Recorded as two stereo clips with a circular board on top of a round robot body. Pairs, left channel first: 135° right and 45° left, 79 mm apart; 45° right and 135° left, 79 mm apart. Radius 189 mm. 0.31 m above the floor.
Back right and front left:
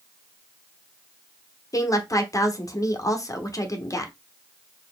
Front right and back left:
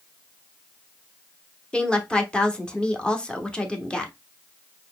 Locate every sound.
1.7 s a woman speaking: 115° right, 1.1 m